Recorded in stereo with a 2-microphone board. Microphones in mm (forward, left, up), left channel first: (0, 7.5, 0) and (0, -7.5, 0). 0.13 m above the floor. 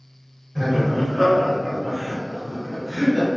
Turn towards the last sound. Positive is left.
turn(degrees=-5)  # may be behind; listen again after turning